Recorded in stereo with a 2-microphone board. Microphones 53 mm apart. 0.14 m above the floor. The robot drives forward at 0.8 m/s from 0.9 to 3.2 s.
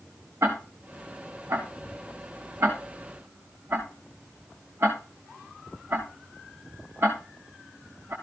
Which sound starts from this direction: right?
Ticking, at 0.4 s.